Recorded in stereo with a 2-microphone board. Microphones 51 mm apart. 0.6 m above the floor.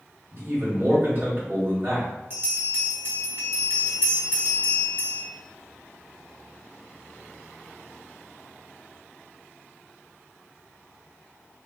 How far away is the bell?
About 1.1 m.